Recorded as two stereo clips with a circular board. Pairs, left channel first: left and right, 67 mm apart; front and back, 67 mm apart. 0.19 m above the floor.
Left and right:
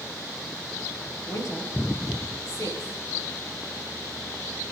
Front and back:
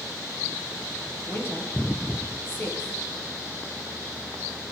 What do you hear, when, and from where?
1.3 s a woman speaking: 55° left, 5 m